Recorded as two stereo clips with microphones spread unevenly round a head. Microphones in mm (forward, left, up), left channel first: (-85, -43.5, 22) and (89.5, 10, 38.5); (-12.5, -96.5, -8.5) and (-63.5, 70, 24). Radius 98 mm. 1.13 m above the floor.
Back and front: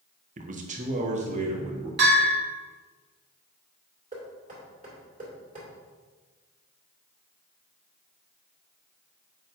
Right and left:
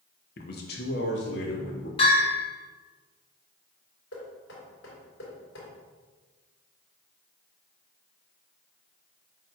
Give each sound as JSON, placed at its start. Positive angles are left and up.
{"t": 0.4, "sound": "a man speaking", "azimuth_deg": -30, "distance_m": 0.9}
{"t": 2.0, "sound": "a bell", "azimuth_deg": -15, "distance_m": 2.5}
{"t": 4.1, "sound": "knocking", "azimuth_deg": -35, "distance_m": 2.5}